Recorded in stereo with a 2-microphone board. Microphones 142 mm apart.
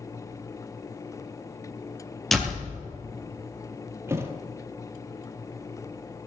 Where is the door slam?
Centre (ahead or behind), 2.5 m.